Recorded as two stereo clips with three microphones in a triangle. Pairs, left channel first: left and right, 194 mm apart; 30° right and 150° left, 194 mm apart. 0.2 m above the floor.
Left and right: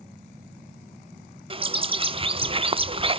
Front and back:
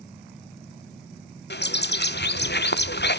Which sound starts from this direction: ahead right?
A bird, at 1.5 s.